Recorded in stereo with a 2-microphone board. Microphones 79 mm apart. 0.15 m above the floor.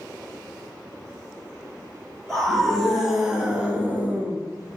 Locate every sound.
2.3 s a scream: 5° left (ahead or behind), 2.5 m; by 4.4 s 30° right (ahead or behind), 2.0 m